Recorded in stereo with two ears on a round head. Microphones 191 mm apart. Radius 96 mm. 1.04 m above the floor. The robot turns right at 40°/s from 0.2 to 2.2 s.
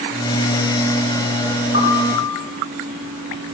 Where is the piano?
50° left (ahead or behind), 4.5 m; by 2.3 s 30° left (ahead or behind), 4.5 m.